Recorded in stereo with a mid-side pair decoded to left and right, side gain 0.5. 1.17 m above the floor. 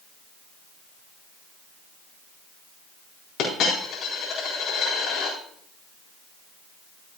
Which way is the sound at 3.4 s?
65° left.